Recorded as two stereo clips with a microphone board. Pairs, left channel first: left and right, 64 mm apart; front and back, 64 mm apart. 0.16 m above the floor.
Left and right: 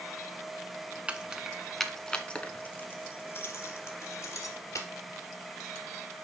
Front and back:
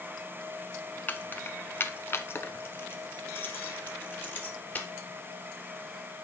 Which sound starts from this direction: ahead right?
Keys jangling, at 1.1 s.